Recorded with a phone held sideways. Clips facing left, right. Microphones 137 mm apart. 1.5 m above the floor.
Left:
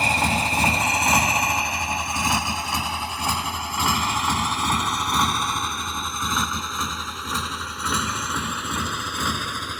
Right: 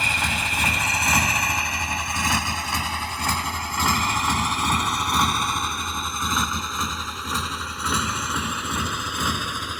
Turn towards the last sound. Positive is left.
turn(degrees=-10)  # may be behind; listen again after turning